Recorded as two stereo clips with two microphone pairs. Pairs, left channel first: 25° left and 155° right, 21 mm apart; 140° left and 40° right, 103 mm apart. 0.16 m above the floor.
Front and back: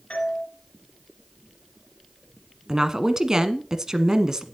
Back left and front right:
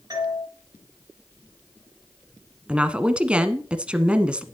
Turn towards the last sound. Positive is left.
turn(degrees=-110)